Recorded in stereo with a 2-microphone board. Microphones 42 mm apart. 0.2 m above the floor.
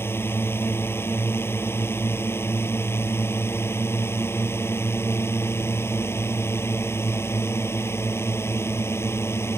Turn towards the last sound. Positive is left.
turn(degrees=70)  # may be behind; listen again after turning